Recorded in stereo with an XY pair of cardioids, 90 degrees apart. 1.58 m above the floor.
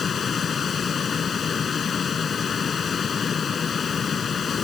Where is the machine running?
50° left.